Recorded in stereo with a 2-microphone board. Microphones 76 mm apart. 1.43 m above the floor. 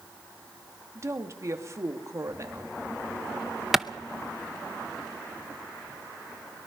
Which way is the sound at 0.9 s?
40° right (ahead or behind).